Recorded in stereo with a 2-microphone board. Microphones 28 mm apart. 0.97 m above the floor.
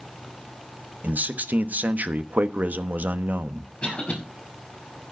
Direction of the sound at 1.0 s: 75° right (ahead or behind).